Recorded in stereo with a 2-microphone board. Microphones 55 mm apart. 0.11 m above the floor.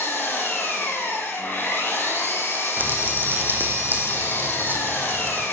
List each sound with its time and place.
0.0 s an engine running: 40° left (ahead or behind), 4 m
2.8 s crumpling: 40° right (ahead or behind), 2 m